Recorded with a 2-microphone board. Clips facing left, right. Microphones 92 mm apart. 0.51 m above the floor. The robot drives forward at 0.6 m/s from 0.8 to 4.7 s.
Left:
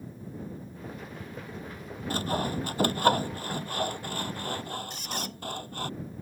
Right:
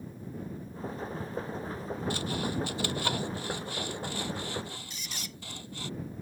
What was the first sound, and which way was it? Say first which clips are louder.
Sawing: left 6 dB; 45° left (ahead or behind).